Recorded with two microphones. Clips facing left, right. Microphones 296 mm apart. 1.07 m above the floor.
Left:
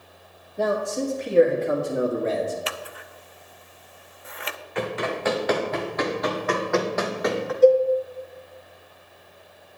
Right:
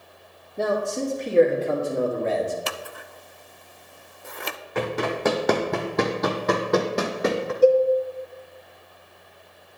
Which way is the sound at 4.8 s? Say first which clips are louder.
Right 2 dB; 50° right (ahead or behind).